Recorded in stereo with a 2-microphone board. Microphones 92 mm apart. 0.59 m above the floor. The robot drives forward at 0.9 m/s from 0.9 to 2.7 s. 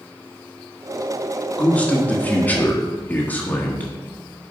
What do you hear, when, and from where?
1.6 s a man speaking: 15° left (ahead or behind), 1.4 m; by 3.9 s 20° left (ahead or behind), 1.0 m